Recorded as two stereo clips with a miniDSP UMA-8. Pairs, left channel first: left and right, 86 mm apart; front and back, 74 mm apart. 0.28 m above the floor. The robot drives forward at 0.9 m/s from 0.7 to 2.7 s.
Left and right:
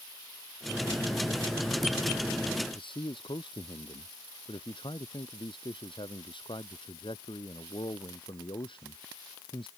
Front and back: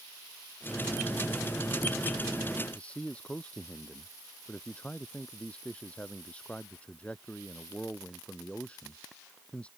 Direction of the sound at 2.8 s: 75° left.